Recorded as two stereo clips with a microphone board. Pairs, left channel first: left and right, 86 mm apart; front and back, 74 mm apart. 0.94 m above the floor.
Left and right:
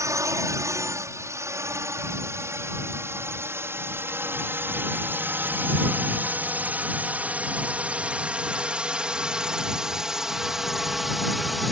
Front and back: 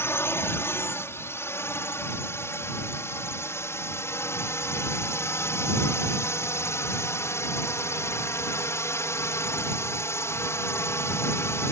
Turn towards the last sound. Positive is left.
turn(degrees=0)